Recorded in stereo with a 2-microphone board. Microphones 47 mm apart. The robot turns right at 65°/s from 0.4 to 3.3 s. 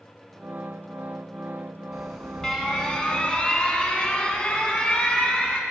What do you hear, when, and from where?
1.9 s an alarm: centre (ahead or behind), 1.6 m; by 5.6 s 25° left (ahead or behind), 1.6 m